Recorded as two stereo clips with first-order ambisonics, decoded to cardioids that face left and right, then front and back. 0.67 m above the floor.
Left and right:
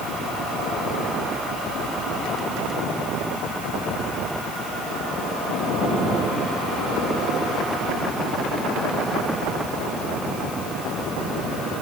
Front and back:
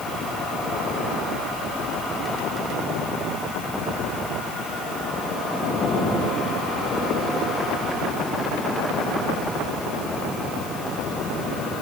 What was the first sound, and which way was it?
Only background noise.